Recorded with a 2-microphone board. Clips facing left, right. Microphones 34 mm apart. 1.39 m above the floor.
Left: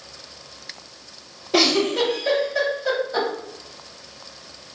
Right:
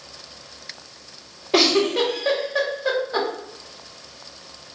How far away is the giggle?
About 1.2 m.